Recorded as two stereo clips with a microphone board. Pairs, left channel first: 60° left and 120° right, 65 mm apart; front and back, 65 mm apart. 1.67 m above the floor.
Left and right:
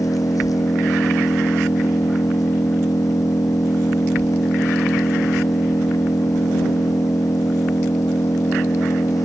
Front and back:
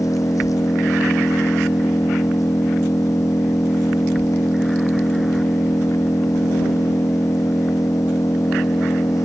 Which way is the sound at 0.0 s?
30° left.